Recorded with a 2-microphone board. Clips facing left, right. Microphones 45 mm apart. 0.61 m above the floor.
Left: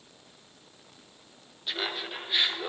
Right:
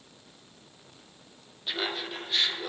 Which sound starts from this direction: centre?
Laughter, at 1.7 s.